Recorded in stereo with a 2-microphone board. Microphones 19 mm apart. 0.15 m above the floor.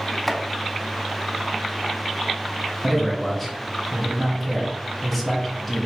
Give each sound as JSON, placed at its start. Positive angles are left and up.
{"t": 0.3, "sound": "chopping", "side_deg": 15, "distance_m": 0.6}
{"t": 2.8, "sound": "a man speaking", "side_deg": 15, "distance_m": 1.1}